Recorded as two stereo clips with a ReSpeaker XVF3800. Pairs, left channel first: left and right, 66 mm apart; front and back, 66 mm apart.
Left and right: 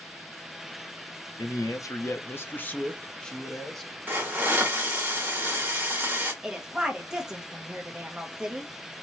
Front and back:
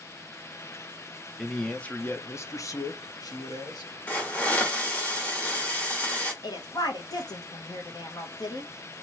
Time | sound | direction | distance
1.4 | a man speaking | 85° left | 0.7 m
4.1 | a hiss | 50° right | 1.3 m
6.4 | a woman speaking | 10° right | 1.1 m